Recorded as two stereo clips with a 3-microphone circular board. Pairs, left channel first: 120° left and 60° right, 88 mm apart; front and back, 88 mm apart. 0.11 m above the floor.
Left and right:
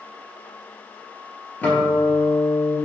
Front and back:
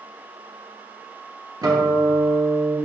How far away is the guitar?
About 1.0 m.